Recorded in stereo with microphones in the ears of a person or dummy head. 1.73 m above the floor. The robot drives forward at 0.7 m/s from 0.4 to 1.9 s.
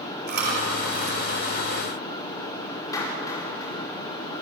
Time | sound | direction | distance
0.3 | chewing | 45° right (ahead or behind) | 3.5 m
2.9 | a clap | 20° left (ahead or behind) | 5 m